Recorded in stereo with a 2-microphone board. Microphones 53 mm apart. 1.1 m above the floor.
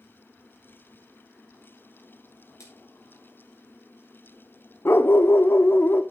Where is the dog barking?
45° left (ahead or behind), 0.7 m.